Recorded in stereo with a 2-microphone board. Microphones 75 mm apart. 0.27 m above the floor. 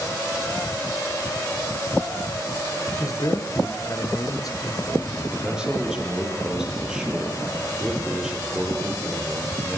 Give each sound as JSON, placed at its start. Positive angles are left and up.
{"t": 3.0, "sound": "a man speaking", "side_deg": 50, "distance_m": 4.5}
{"t": 5.3, "sound": "a man speaking", "side_deg": -10, "distance_m": 8.0}